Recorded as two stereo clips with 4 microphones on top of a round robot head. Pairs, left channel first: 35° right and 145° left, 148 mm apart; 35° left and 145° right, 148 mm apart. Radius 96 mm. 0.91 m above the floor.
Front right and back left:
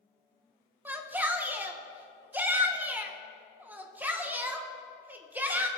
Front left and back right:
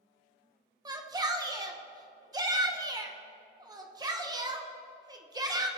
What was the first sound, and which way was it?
A shout, 150° right.